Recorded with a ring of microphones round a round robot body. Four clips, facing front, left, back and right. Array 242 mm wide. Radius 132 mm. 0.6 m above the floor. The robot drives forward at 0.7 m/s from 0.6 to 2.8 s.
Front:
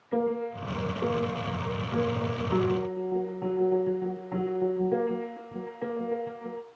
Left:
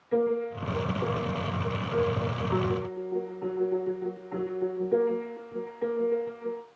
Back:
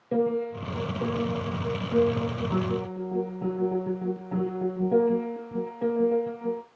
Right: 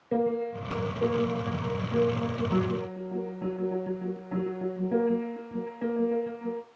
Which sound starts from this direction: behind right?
A piano, at 0.1 s.